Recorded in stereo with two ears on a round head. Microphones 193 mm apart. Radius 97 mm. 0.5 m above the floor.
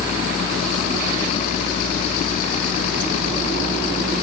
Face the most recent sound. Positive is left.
turn(degrees=30)  # may be behind; listen again after turning